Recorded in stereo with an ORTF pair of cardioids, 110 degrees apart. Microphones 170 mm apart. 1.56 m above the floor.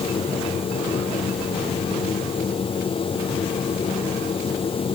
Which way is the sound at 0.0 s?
35° left.